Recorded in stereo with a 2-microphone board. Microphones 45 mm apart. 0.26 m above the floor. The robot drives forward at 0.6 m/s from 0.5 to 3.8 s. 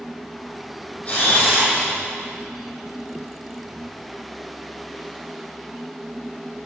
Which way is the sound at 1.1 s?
30° left (ahead or behind).